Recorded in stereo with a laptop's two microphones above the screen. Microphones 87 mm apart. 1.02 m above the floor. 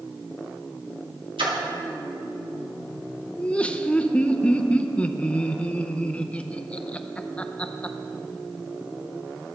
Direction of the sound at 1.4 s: 80° right.